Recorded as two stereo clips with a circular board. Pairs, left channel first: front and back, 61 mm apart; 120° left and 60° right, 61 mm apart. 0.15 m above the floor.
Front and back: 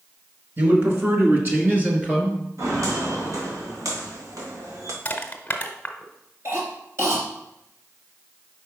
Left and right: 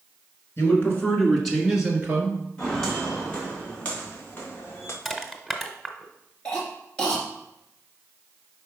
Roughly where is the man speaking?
Behind left.